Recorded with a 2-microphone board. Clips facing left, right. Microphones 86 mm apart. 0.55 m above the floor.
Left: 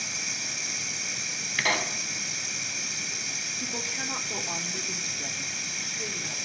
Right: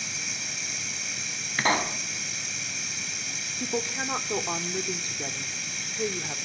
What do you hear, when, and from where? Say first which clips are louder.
0.0 s running water: even; centre (ahead or behind), 1.1 m
1.6 s a pop: right 3 dB; 30° right (ahead or behind), 0.7 m
3.6 s a woman speaking: right 7 dB; 40° right (ahead or behind), 1.2 m